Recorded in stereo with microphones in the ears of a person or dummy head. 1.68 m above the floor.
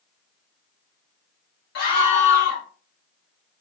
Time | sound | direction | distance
1.8 | a scream | 50° left (ahead or behind) | 1.2 m